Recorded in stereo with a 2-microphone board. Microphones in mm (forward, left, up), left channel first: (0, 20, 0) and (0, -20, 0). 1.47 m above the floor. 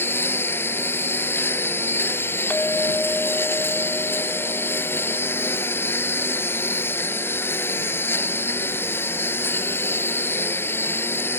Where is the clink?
45° left (ahead or behind).